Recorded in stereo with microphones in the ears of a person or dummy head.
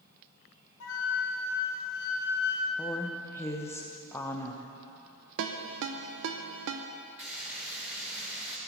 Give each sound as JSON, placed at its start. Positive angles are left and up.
{"t": 0.8, "sound": "a flute", "side_deg": 75, "distance_m": 1.6}
{"t": 2.8, "sound": "a woman speaking", "side_deg": 10, "distance_m": 0.9}
{"t": 5.4, "sound": "a ringtone", "side_deg": -65, "distance_m": 0.7}
{"t": 7.2, "sound": "frying", "side_deg": -5, "distance_m": 1.8}